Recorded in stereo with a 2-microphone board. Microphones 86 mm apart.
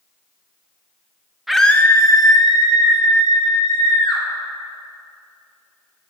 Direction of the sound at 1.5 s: 5° right (ahead or behind).